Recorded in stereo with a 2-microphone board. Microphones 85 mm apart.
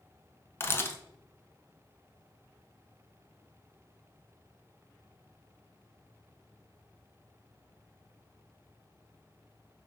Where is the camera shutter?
30° left (ahead or behind), 0.5 m.